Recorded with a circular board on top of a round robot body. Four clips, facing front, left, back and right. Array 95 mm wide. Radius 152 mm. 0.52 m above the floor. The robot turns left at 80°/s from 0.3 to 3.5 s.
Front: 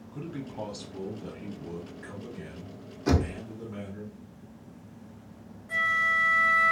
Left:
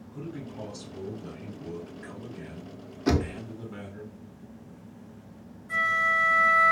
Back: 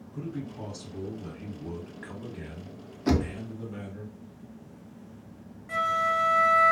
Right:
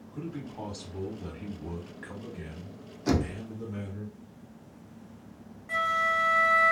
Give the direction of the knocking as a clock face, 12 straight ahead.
8 o'clock.